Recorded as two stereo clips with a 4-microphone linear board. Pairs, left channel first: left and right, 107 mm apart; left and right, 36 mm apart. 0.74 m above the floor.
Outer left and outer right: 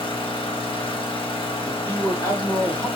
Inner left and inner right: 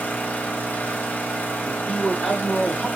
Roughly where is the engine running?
Left.